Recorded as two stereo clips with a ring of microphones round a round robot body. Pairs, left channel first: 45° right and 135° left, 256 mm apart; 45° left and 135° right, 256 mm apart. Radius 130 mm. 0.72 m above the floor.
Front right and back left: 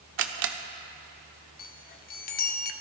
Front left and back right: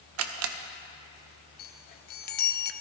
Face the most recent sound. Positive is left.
turn(degrees=0)